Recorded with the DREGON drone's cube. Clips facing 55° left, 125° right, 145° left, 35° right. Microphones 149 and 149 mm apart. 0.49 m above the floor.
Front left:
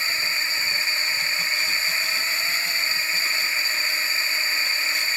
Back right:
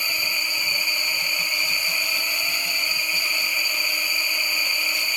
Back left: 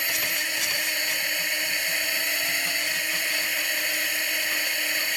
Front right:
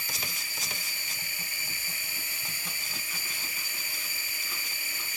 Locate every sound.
0.0 s a drone: 160° left